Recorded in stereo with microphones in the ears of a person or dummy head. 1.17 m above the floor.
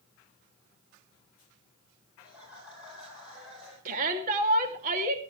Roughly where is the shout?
Right.